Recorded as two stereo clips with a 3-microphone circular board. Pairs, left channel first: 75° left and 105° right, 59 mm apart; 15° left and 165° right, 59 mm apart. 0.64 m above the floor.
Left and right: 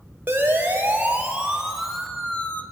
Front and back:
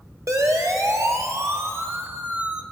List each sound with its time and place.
0.3 s a siren: 155° right, 3.5 m; by 2.6 s 120° left, 1.8 m